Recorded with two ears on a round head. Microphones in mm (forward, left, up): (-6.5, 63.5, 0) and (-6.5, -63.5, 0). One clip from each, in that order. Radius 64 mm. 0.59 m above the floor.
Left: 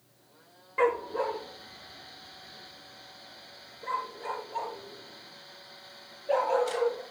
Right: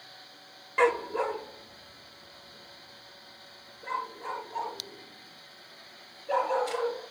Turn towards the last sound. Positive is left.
turn(degrees=20)  # may be behind; listen again after turning